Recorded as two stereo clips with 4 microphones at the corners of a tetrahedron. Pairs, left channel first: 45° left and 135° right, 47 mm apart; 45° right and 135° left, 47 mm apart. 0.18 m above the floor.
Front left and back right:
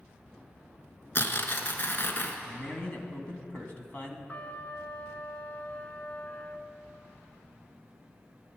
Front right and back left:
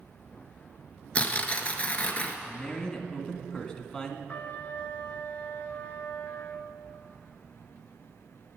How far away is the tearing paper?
About 1.1 m.